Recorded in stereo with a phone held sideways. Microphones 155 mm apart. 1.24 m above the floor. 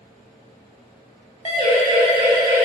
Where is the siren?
40° left (ahead or behind), 6 m.